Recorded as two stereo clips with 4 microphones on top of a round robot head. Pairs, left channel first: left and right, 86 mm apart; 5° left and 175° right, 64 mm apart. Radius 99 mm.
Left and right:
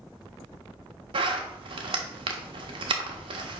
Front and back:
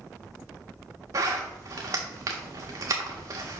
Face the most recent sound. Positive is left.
turn(degrees=-125)